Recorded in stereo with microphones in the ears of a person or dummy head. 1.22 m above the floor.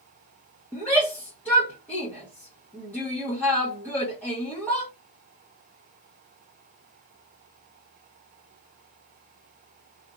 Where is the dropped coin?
No dropped coin in this recording.